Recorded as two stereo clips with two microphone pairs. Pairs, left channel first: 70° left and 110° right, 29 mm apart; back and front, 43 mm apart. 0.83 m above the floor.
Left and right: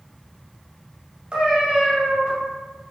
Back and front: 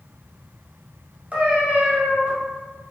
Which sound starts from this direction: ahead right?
A cat meowing, at 1.3 s.